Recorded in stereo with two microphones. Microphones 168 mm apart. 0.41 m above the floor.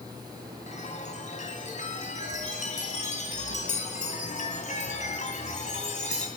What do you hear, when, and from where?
0.7 s a chime: 50° left (ahead or behind), 2.5 m